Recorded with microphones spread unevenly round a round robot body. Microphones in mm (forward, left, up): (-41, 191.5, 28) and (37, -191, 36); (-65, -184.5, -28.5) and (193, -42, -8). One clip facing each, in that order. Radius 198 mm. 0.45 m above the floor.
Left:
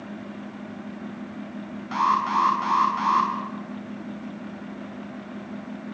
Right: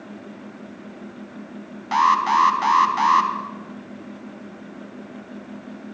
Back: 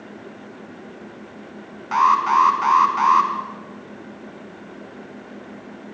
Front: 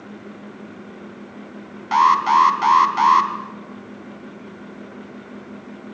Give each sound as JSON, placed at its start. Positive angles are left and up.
{"t": 1.9, "sound": "an alarm", "azimuth_deg": -10, "distance_m": 4.0}